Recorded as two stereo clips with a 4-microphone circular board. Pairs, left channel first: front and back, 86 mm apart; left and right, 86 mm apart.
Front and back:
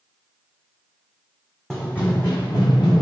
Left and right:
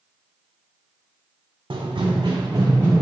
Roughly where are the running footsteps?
Right.